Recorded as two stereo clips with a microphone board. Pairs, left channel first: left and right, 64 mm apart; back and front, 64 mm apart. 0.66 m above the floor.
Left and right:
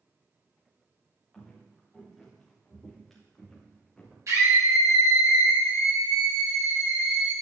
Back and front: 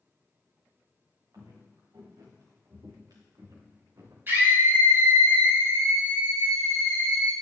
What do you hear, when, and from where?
1.3 s footsteps: straight ahead, 4 m; by 4.2 s 5° left, 2.5 m
4.3 s a scream: 55° right, 4 m